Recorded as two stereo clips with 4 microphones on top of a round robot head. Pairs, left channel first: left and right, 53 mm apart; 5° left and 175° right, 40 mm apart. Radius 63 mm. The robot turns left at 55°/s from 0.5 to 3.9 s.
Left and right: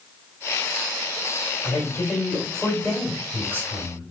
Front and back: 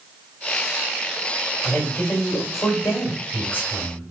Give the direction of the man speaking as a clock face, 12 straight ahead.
10 o'clock.